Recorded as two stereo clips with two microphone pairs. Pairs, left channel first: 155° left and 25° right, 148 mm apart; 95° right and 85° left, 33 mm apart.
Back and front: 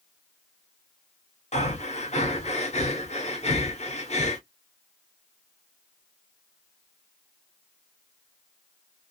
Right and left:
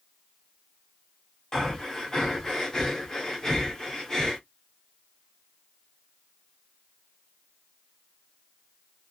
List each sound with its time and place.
1.5 s breathing: 170° right, 1.4 m